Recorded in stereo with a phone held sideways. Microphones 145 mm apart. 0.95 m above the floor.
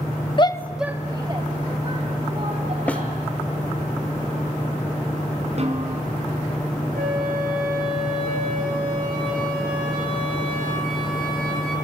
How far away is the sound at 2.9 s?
About 1.4 m.